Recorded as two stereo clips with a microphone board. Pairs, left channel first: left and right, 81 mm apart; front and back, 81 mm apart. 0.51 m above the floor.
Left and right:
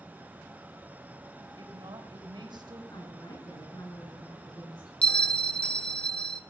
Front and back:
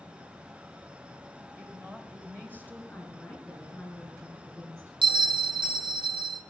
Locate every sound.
1.6 s a woman speaking: 110° right, 2.5 m
2.9 s a woman speaking: 75° left, 6 m
5.0 s a bell: 165° left, 0.6 m